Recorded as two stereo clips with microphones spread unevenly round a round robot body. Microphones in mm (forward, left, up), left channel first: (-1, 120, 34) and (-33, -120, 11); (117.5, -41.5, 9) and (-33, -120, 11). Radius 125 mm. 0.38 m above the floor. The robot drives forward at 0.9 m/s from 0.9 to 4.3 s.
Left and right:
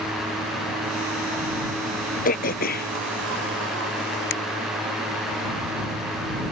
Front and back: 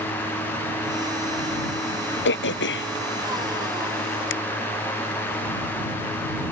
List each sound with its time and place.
2.2 s throat clearing: 25° left; by 4.3 s 35° left